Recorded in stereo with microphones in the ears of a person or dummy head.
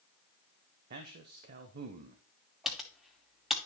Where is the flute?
No flute in this recording.